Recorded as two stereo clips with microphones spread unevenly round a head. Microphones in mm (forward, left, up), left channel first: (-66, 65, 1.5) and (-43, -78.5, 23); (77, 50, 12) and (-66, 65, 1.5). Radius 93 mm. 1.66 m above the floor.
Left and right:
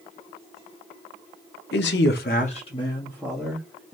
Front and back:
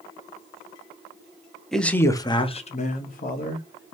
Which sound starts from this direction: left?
A man speaking, at 1.7 s.